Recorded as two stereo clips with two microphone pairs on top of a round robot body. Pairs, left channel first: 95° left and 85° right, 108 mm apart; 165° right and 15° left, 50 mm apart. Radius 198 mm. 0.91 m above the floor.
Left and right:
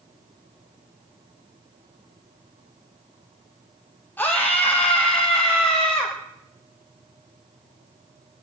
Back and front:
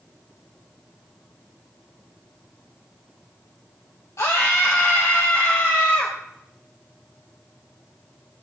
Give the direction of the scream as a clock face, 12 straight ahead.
6 o'clock.